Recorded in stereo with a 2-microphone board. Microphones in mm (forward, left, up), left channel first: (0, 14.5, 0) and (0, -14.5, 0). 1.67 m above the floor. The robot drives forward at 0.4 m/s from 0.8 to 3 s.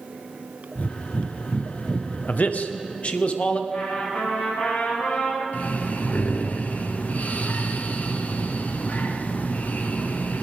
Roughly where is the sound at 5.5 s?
Left.